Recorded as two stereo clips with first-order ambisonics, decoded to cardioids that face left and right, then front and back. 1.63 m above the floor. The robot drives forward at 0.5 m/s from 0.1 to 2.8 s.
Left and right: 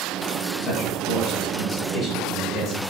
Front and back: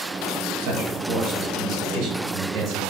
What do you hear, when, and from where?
0.6 s a man speaking: 150° left, 4 m; by 2.8 s 155° left, 5 m